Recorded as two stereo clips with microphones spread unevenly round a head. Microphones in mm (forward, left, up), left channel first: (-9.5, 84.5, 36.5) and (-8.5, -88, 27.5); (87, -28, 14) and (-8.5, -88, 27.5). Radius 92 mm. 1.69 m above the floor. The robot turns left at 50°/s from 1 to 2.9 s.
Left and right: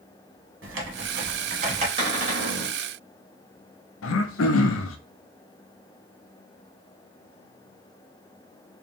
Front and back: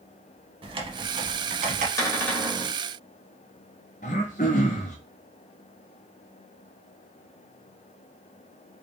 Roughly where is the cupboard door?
Ahead right.